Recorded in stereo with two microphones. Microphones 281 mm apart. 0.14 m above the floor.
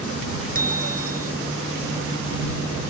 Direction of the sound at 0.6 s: 30° right (ahead or behind).